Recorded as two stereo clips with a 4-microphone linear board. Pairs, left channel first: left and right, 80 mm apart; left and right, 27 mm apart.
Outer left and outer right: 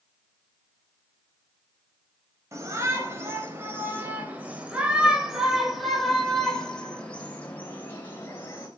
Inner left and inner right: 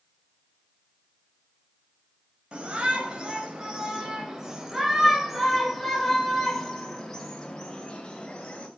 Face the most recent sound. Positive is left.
turn(degrees=35)  # may be behind; listen again after turning